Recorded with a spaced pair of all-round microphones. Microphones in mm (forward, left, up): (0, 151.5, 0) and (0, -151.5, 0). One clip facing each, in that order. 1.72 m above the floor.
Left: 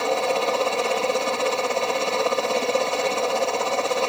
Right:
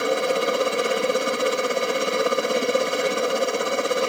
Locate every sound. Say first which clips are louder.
0.0 s a helicopter: right 1 dB; 20° right (ahead or behind)